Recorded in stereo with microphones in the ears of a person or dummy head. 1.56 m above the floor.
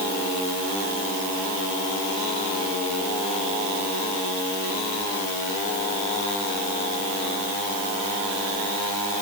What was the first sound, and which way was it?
Only background noise.